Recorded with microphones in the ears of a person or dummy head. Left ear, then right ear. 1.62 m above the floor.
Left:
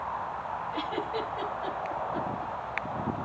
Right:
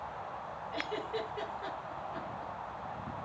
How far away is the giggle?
About 7.5 m.